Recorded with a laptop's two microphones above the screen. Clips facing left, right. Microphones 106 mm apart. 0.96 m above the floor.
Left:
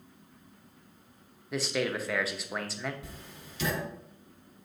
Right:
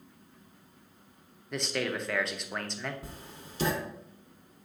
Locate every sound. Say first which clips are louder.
1.5 s a man speaking: left 2 dB; 5° left (ahead or behind), 0.6 m
3.0 s writing: right 1 dB; 40° right (ahead or behind), 0.8 m